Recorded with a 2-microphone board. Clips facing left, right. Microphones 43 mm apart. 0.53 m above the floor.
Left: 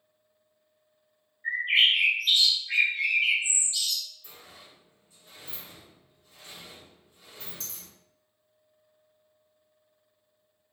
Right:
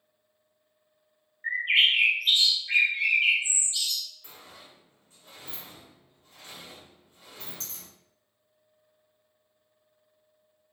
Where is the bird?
30° right (ahead or behind), 1.0 m.